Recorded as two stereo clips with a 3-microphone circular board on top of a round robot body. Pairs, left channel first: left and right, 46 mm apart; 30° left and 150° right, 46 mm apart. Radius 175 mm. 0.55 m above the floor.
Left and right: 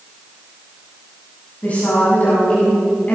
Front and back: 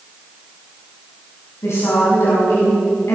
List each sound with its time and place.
1.6 s a woman speaking: 35° left, 7.5 m